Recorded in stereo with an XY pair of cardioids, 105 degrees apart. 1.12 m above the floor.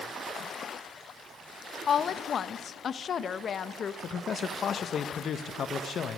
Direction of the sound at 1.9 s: 45° left.